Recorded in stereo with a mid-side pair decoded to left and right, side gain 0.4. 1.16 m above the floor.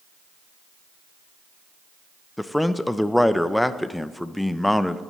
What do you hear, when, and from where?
2.4 s a man speaking: 10° left, 0.7 m